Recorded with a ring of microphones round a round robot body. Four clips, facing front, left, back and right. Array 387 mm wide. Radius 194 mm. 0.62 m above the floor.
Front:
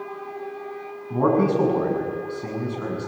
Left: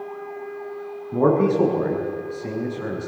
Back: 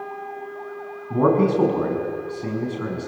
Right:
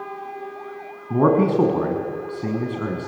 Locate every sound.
1.1 s a man speaking: 95° right, 6.5 m